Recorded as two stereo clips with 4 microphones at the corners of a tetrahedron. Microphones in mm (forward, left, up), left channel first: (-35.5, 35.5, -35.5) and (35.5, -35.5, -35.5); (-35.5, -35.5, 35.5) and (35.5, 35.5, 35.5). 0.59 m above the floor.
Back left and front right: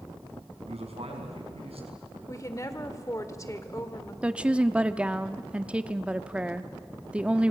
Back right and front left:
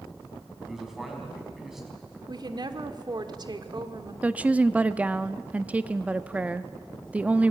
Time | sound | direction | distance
0.7 | a man speaking | 40° right | 4.5 m
2.3 | a woman speaking | 80° left | 1.6 m
4.2 | a woman speaking | 5° left | 0.7 m